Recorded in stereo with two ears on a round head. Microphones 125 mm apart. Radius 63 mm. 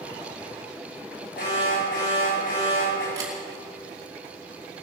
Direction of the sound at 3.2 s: 25° right (ahead or behind).